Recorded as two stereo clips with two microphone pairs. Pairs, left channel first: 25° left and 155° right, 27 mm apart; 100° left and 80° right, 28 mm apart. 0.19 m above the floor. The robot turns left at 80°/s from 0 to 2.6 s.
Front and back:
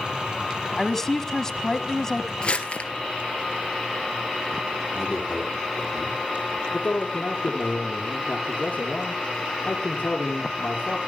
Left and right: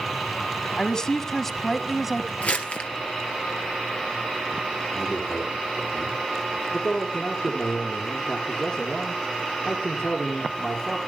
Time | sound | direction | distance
0.8 | a woman speaking | 95° left | 1.1 m
2.4 | crumpling | 75° left | 2.5 m
4.9 | a man speaking | 110° left | 9 m
6.7 | a man speaking | 40° left | 3.5 m